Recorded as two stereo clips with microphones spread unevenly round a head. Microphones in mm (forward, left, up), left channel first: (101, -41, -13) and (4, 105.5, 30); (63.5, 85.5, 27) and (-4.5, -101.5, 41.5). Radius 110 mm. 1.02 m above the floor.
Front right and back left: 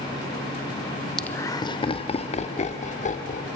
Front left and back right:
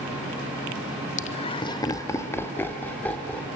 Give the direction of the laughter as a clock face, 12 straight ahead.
11 o'clock.